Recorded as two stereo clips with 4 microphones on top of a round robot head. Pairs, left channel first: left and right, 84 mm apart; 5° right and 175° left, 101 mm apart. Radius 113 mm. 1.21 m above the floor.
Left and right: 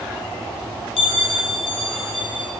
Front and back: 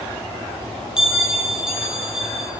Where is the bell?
95° left, 1.7 m.